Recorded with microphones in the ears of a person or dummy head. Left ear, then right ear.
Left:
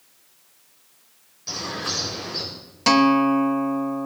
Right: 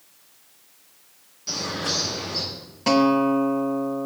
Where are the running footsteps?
I don't hear running footsteps.